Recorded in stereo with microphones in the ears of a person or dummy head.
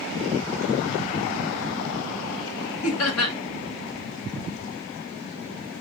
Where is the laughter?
85° left, 1.4 m.